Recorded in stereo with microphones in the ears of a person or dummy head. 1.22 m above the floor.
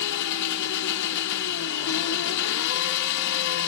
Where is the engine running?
60° left (ahead or behind), 1.5 m.